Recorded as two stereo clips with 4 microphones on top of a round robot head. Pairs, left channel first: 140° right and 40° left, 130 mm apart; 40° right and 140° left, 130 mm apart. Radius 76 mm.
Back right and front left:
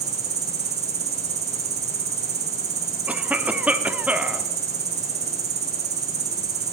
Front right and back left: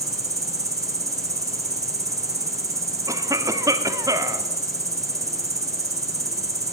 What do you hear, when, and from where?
0.0 s an insect: 75° left, 1.2 m
3.1 s a cough: 110° left, 0.9 m